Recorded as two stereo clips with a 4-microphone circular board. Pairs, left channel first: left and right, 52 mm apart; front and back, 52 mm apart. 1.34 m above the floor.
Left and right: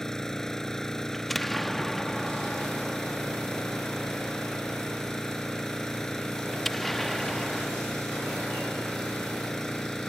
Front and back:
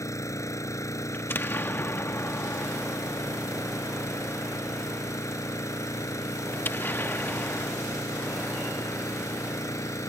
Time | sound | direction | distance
0.0 | an engine running | 10° left | ?
1.1 | an explosion | 5° left | ?